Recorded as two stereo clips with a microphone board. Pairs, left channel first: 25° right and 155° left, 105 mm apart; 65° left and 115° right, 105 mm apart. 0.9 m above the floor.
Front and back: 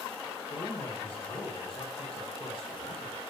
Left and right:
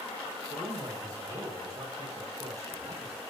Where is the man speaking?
55° right, 6 m.